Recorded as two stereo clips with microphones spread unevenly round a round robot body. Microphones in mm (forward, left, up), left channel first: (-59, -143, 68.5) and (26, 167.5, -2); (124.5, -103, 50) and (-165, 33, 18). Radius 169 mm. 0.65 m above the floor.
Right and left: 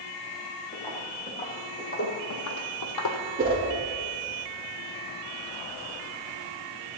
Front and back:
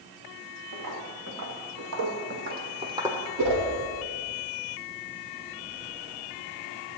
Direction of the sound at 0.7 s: 175° right.